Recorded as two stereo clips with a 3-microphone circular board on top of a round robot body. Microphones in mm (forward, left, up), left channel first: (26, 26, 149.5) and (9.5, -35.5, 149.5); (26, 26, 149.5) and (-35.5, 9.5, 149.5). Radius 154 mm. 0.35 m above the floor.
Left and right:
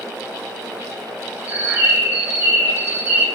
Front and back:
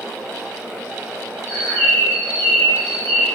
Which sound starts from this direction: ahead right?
A bird, at 1.5 s.